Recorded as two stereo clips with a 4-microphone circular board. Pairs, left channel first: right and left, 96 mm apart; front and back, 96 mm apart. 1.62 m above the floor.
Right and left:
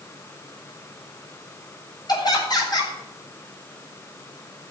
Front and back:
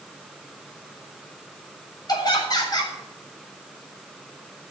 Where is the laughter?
45° right, 7.5 m.